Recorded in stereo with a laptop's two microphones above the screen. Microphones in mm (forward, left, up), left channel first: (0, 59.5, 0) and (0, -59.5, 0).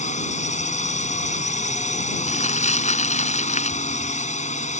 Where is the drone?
85° left.